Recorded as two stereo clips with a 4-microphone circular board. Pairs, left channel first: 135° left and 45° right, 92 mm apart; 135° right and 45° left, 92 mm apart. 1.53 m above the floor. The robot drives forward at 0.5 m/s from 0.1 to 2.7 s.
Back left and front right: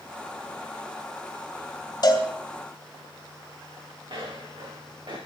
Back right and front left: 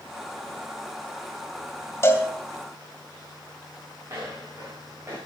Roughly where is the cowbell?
Behind.